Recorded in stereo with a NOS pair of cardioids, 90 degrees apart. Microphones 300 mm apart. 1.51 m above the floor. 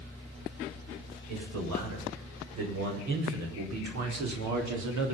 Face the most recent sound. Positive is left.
turn(degrees=-65)